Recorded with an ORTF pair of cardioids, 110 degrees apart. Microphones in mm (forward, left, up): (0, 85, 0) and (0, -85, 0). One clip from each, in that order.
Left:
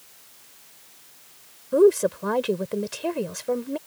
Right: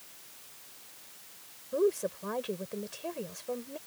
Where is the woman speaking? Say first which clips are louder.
Left 11 dB; 55° left.